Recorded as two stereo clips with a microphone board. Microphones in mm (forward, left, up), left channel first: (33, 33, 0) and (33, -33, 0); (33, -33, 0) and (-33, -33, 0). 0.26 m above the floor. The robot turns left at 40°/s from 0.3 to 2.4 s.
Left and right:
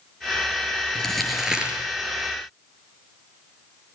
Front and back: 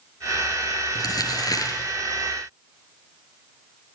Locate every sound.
0.9 s crumpling: 10° left, 6 m; by 1.8 s 20° right, 6 m